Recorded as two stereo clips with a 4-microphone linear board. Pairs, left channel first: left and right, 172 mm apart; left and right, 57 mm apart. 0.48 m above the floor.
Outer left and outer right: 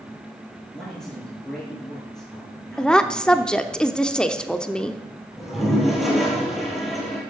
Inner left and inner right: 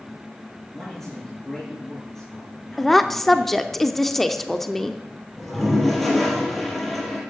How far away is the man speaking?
About 8 m.